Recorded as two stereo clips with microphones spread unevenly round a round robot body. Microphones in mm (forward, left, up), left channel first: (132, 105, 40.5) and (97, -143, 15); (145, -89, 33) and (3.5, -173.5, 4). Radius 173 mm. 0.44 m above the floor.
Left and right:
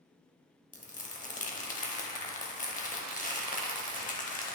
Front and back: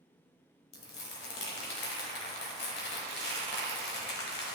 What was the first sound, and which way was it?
Crumpling, 20° left.